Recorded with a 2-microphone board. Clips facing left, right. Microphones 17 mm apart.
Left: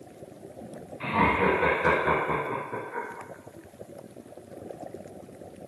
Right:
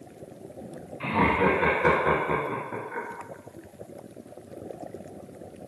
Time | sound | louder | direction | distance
1.0 | laughter | right 1 dB | 5° right (ahead or behind) | 1.5 m